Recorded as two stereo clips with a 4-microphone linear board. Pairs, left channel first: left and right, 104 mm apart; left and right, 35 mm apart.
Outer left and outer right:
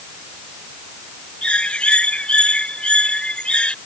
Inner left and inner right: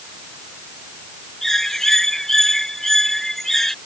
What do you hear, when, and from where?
1.4 s a bird: 10° left (ahead or behind)